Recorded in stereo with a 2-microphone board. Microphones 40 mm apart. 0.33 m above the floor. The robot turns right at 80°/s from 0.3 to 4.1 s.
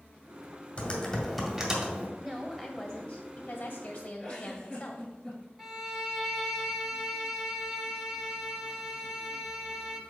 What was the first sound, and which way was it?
Typing on a keyboard, 120° left.